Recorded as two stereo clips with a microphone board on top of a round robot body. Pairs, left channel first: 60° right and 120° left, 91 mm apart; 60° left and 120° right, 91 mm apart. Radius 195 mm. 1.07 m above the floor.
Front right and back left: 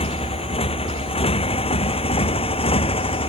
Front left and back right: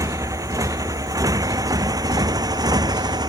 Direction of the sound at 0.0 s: 65° right.